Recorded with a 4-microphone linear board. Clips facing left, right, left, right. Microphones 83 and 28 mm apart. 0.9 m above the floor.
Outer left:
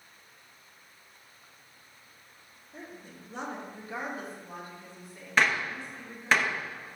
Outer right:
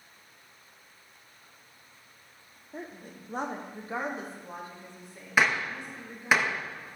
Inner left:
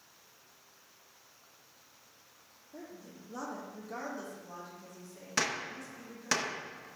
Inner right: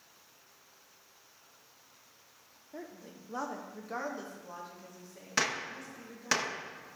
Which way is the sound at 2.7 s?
45° right (ahead or behind).